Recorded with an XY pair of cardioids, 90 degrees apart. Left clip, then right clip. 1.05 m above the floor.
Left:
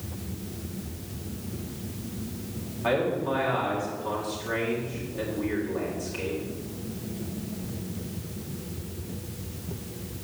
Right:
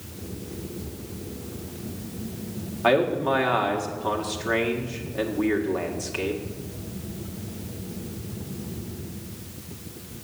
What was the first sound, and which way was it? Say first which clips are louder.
A man speaking: right 5 dB; 60° right.